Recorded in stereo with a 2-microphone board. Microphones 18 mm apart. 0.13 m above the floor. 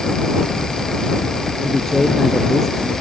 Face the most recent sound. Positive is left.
turn(degrees=15)  # may be behind; listen again after turning